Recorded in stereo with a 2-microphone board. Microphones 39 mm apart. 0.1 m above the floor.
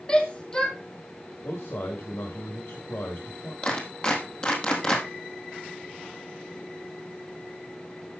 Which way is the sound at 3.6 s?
25° left (ahead or behind).